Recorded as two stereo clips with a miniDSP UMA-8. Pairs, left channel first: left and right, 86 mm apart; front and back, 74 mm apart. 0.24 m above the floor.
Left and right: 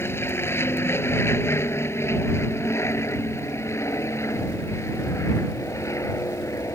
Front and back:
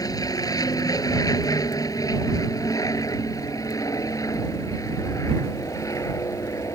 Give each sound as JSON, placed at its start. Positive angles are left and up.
{"t": 0.0, "sound": "an aircraft", "azimuth_deg": 30}